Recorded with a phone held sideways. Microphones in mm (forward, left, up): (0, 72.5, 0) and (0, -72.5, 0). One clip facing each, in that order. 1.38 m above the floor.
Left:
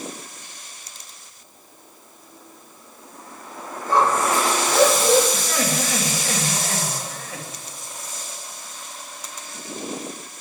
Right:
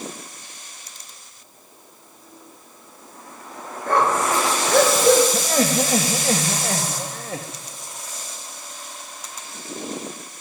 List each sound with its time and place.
3.9 s a dog barking: 65° right (ahead or behind), 7 m; by 5.2 s 60° right (ahead or behind), 6 m
5.3 s laughter: 40° right (ahead or behind), 2 m